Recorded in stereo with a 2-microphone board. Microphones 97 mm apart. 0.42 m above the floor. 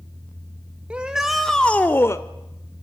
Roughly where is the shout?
Centre.